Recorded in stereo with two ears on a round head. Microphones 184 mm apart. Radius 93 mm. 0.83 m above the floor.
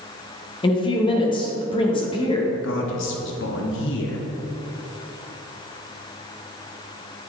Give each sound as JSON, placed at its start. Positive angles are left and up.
{"t": 0.6, "sound": "a woman speaking", "side_deg": 25, "distance_m": 1.0}
{"t": 2.5, "sound": "a man speaking", "side_deg": 60, "distance_m": 1.0}